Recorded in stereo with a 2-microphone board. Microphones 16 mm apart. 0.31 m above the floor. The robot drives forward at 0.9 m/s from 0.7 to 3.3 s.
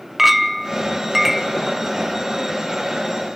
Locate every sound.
0.2 s a clink: 10° right (ahead or behind), 0.7 m; by 1.6 s 5° right (ahead or behind), 1.3 m